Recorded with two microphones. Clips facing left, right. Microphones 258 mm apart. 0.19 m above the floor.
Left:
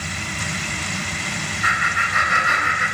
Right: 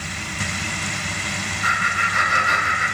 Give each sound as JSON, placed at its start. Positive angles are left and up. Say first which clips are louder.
{"t": 1.6, "sound": "laughter", "louder": "even", "side_deg": 55, "distance_m": 2.0}